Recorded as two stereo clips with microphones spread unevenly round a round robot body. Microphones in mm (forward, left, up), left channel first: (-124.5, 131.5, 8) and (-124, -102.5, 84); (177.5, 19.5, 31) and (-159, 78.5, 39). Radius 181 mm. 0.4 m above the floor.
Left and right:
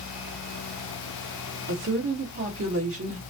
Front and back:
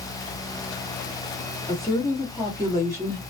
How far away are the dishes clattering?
I don't hear dishes clattering.